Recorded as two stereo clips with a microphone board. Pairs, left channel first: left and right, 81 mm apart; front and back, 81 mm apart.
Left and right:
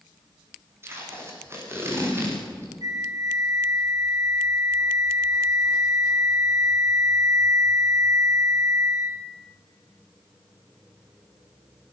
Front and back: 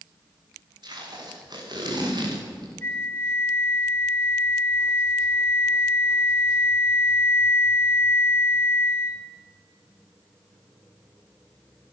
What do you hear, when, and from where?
0.8 s tape being pulled: 150° right, 9 m
2.8 s a flute: 55° right, 1.7 m